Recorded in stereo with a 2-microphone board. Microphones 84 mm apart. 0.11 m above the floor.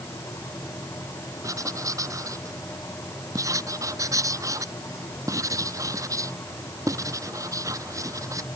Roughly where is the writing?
Right.